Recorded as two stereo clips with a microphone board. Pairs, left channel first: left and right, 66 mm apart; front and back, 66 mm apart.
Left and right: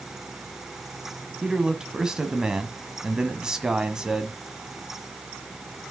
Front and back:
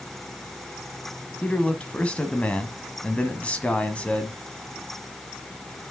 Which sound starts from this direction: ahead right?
A man speaking, at 1.4 s.